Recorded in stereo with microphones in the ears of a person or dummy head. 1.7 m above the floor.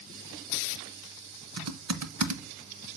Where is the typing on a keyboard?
85° right, 0.6 m.